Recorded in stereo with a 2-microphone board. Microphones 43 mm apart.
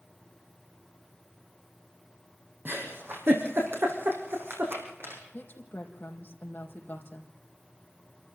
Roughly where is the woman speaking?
Left.